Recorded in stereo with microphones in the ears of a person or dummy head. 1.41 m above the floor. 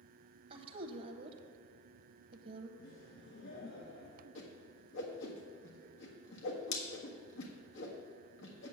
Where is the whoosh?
70° left (ahead or behind), 1.5 m.